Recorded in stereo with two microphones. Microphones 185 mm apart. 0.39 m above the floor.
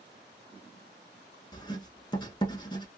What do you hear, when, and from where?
1.5 s writing: 25° left (ahead or behind), 0.9 m